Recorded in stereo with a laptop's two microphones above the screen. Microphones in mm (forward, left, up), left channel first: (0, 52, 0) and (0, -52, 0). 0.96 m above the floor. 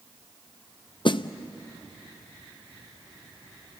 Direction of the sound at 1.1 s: 50° left (ahead or behind).